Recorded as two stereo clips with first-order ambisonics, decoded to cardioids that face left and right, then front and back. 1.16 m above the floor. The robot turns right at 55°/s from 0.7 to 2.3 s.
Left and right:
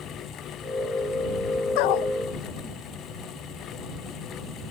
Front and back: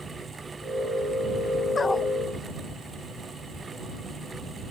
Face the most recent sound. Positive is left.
turn(degrees=105)